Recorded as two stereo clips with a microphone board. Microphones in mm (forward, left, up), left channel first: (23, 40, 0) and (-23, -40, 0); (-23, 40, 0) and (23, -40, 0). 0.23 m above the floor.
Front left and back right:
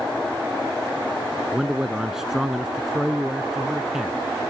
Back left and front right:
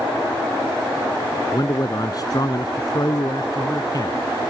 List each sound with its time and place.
1.5 s a man speaking: 155° left